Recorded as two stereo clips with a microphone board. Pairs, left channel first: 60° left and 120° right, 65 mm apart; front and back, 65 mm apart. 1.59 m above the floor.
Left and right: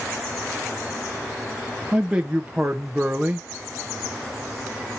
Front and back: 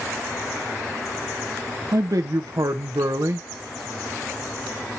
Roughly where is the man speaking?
Behind.